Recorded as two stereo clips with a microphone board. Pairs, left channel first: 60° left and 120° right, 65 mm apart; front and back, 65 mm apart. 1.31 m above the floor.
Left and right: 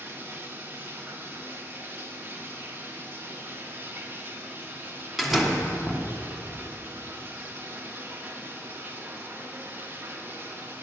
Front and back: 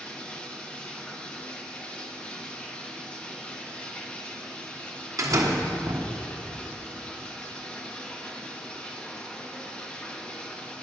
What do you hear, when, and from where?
0.0 s running water: 70° right, 0.8 m
5.2 s a door slam: 150° left, 0.9 m